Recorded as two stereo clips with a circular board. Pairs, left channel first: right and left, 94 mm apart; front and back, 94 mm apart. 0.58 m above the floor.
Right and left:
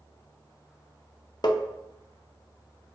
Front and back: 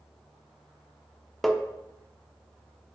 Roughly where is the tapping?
Right.